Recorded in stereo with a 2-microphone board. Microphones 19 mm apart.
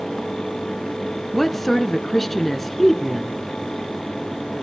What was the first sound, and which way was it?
A woman speaking, 15° left (ahead or behind).